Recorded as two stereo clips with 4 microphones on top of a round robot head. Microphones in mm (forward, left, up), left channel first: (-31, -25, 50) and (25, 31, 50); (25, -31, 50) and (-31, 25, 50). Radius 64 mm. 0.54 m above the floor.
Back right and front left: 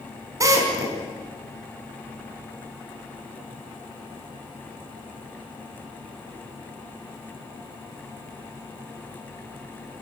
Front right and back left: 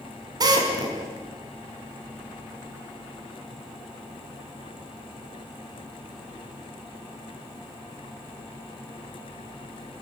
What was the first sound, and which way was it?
A drill, 95° left.